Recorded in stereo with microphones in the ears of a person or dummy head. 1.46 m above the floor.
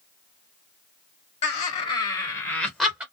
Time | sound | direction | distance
1.4 | laughter | 45° left (ahead or behind) | 1.1 m